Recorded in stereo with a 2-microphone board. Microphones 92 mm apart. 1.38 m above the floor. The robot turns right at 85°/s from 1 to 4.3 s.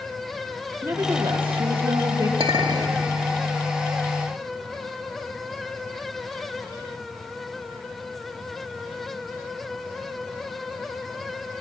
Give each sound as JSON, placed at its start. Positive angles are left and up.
{"t": 0.8, "sound": "a woman speaking", "azimuth_deg": -150, "distance_m": 1.6}
{"t": 2.4, "sound": "a clink", "azimuth_deg": -75, "distance_m": 2.0}